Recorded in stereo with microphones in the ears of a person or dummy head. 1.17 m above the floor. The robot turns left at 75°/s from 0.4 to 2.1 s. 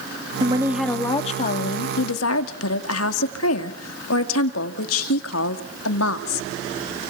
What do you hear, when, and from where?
0.4 s a woman speaking: 140° right, 2.5 m; by 6.5 s 90° left, 2.5 m